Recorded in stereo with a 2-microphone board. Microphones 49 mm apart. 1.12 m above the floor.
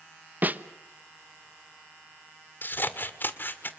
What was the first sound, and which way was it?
A snare drum, 40° right (ahead or behind).